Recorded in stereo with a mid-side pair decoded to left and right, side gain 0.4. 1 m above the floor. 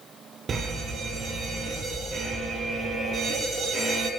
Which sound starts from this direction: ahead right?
A fire alarm, at 0.5 s.